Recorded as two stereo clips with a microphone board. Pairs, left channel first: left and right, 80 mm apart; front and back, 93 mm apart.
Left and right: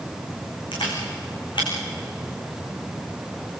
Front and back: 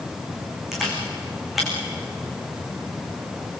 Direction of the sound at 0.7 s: 90° left.